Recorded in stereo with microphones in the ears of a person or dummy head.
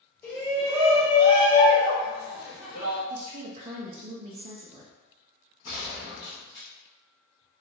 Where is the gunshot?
20° left (ahead or behind), 0.9 m.